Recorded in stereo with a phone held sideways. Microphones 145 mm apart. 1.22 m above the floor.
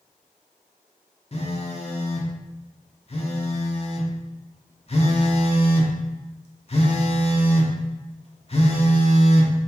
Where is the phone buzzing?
45° left (ahead or behind), 0.6 m.